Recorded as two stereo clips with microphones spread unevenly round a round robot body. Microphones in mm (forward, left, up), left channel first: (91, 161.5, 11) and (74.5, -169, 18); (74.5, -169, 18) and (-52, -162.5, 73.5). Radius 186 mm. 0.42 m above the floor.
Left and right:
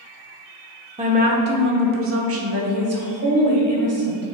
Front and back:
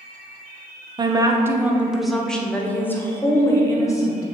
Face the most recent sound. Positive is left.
turn(degrees=-50)